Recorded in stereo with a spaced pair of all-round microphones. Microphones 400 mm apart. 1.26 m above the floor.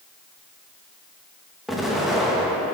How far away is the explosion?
About 1.0 m.